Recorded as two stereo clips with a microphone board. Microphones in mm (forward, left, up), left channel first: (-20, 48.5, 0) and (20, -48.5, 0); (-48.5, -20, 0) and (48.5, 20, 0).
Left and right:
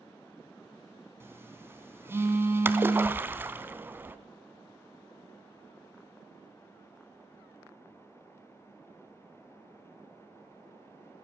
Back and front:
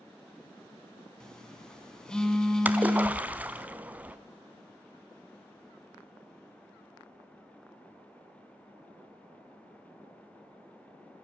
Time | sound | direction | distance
1.2 | a phone buzzing | 85° right | 1.4 m
2.6 | a splash | 30° right | 0.7 m